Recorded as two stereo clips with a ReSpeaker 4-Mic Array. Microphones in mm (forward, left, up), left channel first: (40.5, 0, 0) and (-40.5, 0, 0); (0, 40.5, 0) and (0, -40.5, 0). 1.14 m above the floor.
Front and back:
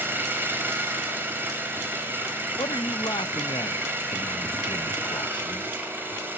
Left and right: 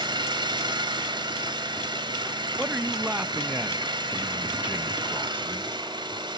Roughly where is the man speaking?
Ahead.